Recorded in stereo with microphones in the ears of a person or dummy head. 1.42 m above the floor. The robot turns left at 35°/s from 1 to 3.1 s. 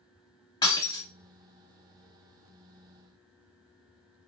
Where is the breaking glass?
25° left (ahead or behind), 1.4 m.